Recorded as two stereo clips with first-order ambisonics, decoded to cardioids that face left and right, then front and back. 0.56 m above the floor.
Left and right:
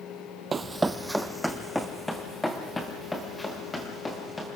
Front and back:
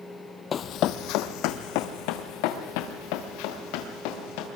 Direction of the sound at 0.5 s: 30° right.